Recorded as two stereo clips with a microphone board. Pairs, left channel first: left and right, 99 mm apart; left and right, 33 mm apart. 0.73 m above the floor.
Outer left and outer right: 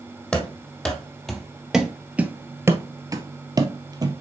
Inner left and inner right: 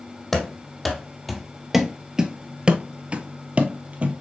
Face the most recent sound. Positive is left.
turn(degrees=-45)  # may be behind; listen again after turning